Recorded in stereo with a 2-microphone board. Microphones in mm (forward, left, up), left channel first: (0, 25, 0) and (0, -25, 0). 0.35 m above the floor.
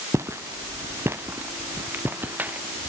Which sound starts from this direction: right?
Footsteps, at 0.1 s.